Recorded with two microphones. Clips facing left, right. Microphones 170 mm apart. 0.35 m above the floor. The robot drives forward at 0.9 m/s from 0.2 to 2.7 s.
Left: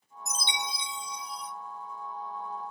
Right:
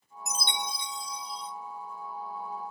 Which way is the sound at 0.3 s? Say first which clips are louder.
Right 1 dB; 65° right (ahead or behind).